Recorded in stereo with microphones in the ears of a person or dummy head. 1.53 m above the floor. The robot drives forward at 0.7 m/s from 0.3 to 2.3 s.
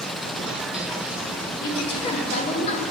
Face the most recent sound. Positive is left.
turn(degrees=35)  # may be behind; listen again after turning